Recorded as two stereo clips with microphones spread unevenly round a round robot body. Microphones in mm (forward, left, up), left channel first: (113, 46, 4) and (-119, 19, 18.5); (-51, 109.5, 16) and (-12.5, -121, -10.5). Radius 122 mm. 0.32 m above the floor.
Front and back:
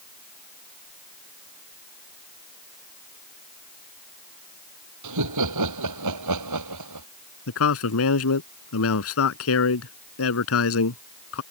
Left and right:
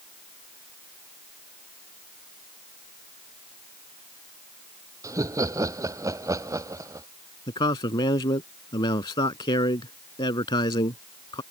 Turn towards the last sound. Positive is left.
turn(degrees=25)